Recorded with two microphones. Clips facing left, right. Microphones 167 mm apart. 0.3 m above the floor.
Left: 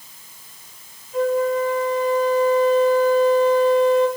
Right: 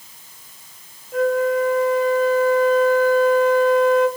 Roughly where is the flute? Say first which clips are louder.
Right 1 dB; right.